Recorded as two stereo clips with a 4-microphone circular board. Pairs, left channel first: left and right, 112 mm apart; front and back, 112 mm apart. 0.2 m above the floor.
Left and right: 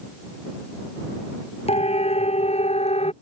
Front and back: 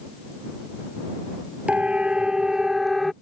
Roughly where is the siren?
Left.